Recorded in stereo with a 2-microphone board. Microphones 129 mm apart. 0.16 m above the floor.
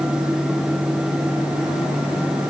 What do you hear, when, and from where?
Only background noise.